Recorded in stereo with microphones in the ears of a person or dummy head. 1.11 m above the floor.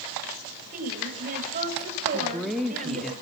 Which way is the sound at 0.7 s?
40° right (ahead or behind).